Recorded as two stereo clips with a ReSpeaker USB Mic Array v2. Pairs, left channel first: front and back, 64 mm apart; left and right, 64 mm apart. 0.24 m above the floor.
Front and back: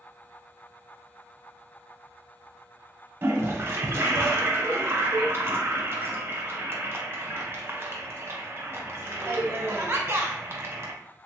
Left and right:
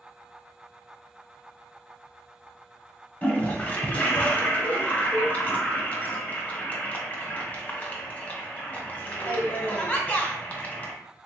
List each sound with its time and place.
3.2 s a toilet flushing: 145° left, 0.7 m